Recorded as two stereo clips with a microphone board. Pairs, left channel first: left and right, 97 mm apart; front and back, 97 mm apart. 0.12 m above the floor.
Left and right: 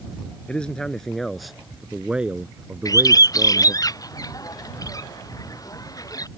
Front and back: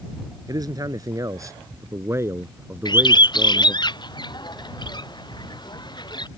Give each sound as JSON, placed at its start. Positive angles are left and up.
{"t": 0.5, "sound": "a man speaking", "azimuth_deg": 165}
{"t": 2.9, "sound": "a bird", "azimuth_deg": 40}